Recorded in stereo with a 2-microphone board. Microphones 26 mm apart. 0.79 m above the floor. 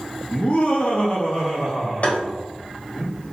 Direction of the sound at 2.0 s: 60° left (ahead or behind).